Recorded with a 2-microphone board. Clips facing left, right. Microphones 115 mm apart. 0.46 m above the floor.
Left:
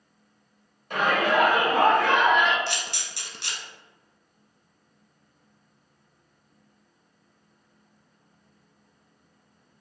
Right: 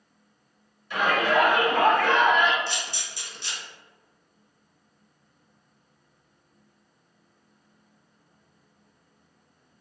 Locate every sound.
0.9 s a shout: 50° left (ahead or behind), 1.8 m; by 2.6 s 5° right (ahead or behind), 1.2 m
2.7 s a camera shutter: 75° left (ahead or behind), 0.8 m